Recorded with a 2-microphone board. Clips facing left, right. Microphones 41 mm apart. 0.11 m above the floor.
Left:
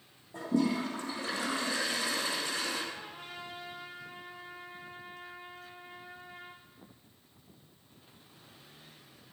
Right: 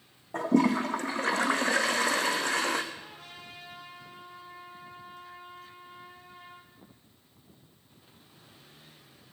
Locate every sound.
0.3 s a toilet flushing: 70° right (ahead or behind), 1.5 m
2.9 s a trumpet: 70° left (ahead or behind), 4.5 m